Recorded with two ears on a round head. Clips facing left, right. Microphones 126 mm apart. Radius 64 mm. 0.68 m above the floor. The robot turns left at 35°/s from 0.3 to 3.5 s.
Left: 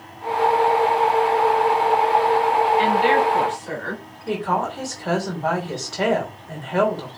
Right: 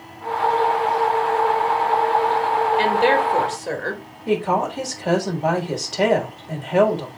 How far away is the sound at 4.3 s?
About 3 m.